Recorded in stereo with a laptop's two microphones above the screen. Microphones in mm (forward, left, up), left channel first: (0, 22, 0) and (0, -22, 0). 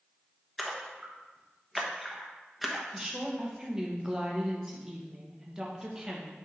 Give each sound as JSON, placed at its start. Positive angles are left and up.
{"t": 0.6, "sound": "a splash", "side_deg": -5, "distance_m": 1.0}
{"t": 2.9, "sound": "a woman speaking", "side_deg": -15, "distance_m": 0.8}